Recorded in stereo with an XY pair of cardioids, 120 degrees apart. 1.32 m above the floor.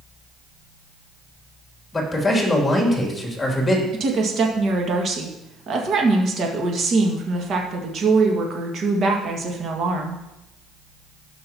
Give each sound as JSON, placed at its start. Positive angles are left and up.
{"t": 1.9, "sound": "a man speaking", "azimuth_deg": 10, "distance_m": 2.5}
{"t": 3.9, "sound": "a woman speaking", "azimuth_deg": -50, "distance_m": 1.9}